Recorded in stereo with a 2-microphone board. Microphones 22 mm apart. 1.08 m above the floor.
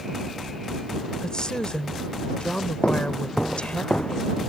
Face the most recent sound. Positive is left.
turn(degrees=70)  # may be behind; listen again after turning